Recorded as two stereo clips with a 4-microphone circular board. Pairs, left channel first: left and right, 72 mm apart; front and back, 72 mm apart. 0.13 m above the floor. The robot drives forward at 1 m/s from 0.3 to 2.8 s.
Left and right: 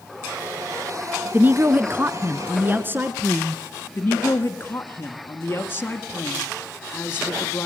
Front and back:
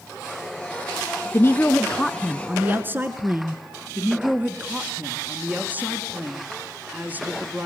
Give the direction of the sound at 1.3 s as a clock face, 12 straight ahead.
1 o'clock.